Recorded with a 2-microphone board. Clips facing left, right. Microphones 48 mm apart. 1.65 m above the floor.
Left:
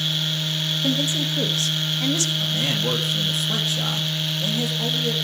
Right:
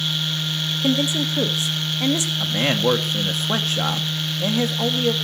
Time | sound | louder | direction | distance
0.8 | a woman speaking | right 4 dB | 20° right (ahead or behind) | 1.9 m
2.4 | a man speaking | right 4 dB | 45° right (ahead or behind) | 2.5 m